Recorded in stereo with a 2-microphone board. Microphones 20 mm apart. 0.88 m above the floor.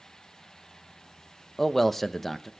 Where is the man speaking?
15° left (ahead or behind), 0.8 m.